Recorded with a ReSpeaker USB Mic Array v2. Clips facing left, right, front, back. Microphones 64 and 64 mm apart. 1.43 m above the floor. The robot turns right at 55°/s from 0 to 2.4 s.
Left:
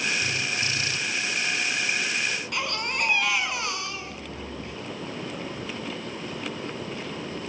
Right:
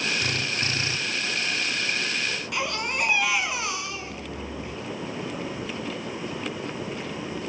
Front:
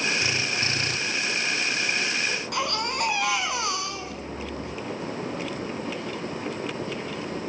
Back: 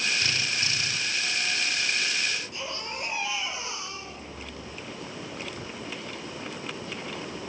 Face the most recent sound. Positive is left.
turn(degrees=-5)